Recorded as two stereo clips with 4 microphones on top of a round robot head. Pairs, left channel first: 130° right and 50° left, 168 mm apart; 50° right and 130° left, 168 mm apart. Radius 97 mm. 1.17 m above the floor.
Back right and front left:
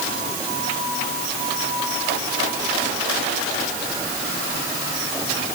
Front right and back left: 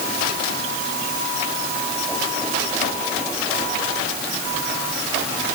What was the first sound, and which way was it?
Only background noise.